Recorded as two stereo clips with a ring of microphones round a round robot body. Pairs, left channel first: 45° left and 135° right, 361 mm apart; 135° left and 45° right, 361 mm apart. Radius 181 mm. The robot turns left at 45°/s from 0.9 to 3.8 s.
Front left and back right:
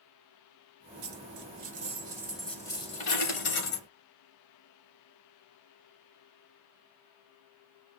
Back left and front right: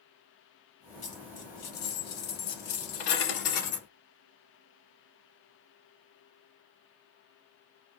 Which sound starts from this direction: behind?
A dropped coin, at 1.0 s.